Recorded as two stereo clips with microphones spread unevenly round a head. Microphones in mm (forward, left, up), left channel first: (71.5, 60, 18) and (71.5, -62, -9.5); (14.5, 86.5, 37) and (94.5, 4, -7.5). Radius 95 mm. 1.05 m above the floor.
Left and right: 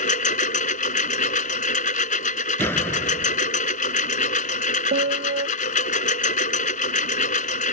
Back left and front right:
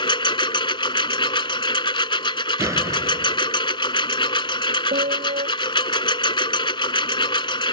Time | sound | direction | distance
0.0 | a lawn mower | 95° left | ?
2.6 | a door slam | 20° left | ?
4.9 | a piano | 95° right | ?